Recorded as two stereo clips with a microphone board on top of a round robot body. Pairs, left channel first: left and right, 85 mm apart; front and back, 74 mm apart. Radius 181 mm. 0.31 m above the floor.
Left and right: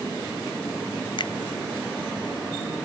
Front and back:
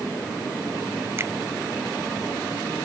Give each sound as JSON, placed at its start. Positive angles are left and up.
{"t": 1.2, "sound": "a finger snap", "azimuth_deg": 125}